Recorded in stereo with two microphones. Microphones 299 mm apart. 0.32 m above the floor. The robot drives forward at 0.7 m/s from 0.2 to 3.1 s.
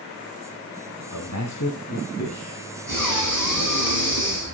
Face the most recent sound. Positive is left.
turn(degrees=70)  # may be behind; listen again after turning